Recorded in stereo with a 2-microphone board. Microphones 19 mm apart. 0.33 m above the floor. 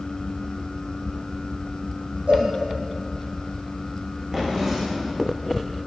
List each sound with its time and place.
2.3 s a cowbell: 70° right (ahead or behind), 8 m
4.3 s a drawer: 30° right (ahead or behind), 9.5 m